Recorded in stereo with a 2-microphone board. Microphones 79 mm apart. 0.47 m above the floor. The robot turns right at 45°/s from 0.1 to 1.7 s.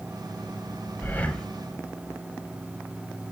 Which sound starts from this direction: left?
Breathing, at 1.0 s.